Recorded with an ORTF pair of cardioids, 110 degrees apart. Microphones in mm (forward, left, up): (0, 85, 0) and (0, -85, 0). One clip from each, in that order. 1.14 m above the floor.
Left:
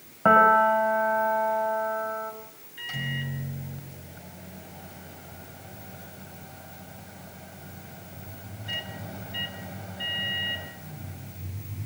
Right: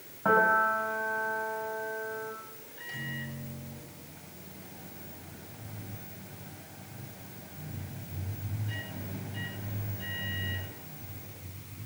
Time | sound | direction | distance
0.2 | a piano | 50° left | 6 m
2.8 | a microwave | 55° left | 6.5 m